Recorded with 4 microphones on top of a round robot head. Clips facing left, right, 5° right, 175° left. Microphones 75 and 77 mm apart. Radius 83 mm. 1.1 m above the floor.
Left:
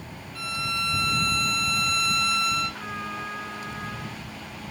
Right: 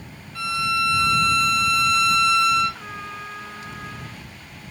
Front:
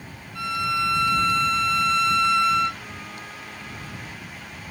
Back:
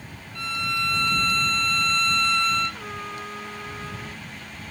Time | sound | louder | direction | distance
0.3 | a violin | right 7 dB, front 4 dB | 85° right | ?
2.7 | a trumpet | left 1 dB, back 4 dB | straight behind | ?